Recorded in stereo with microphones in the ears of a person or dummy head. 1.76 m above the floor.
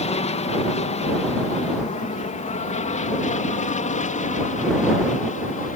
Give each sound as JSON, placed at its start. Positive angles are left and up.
{"t": 0.0, "sound": "an aircraft", "side_deg": 25}